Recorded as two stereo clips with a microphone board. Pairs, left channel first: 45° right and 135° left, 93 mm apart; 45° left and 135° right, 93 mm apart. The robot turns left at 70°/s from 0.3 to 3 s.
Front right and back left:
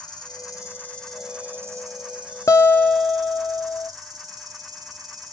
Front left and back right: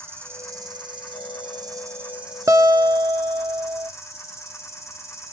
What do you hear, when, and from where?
0.0 s an insect: 75° right, 0.9 m; by 5.3 s 95° left, 0.9 m
2.5 s a guitar: 90° right, 0.5 m; by 3.9 s 125° right, 0.5 m